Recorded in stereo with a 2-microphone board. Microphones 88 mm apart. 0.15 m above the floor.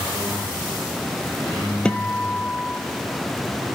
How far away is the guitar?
About 1.0 m.